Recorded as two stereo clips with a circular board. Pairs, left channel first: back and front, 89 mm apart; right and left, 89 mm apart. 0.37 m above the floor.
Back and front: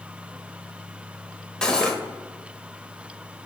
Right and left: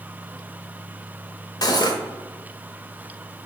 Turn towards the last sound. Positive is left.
turn(degrees=-100)